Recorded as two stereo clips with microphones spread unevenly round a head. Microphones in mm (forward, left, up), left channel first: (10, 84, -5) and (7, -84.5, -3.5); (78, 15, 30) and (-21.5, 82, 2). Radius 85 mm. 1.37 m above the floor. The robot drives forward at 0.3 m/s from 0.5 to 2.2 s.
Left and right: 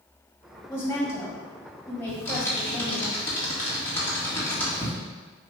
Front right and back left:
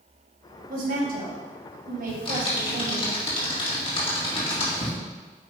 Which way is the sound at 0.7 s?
165° left.